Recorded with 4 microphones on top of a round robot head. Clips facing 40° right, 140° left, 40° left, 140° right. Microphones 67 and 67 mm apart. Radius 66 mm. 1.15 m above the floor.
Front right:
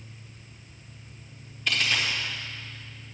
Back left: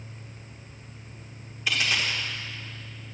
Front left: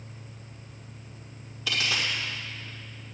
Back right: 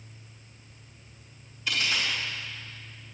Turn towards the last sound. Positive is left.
turn(degrees=55)